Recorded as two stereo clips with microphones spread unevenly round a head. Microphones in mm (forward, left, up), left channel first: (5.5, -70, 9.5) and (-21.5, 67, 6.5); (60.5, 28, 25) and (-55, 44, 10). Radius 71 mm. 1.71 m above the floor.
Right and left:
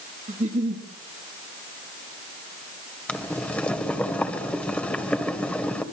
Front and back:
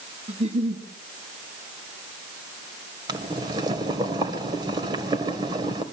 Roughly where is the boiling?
Behind right.